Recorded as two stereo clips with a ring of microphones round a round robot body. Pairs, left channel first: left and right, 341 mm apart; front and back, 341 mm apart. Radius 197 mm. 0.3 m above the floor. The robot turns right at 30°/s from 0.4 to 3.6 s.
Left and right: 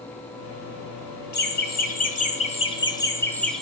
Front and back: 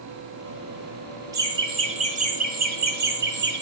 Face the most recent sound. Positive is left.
turn(degrees=180)